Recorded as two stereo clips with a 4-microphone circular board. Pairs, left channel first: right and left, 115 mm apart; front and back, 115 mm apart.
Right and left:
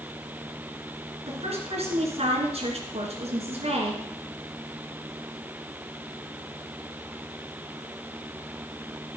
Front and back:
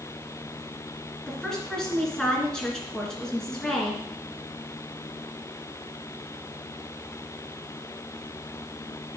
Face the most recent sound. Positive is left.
turn(degrees=85)